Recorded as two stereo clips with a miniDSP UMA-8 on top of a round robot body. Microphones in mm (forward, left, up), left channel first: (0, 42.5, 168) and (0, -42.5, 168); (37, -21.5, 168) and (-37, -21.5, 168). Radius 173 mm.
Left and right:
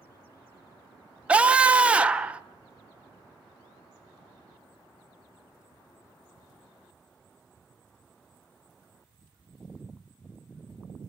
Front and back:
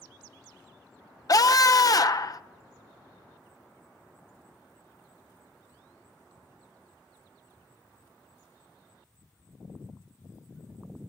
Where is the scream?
15° right, 1.6 m.